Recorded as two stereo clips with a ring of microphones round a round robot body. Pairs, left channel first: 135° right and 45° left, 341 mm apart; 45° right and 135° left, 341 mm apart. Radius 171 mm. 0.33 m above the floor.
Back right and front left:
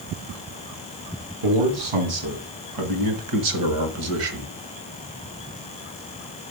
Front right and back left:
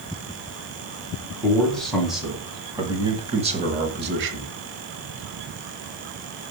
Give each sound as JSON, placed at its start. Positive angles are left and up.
{"t": 1.4, "sound": "a man speaking", "azimuth_deg": 40, "distance_m": 2.5}